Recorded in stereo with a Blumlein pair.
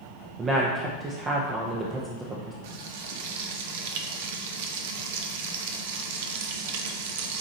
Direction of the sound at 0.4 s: 20° right.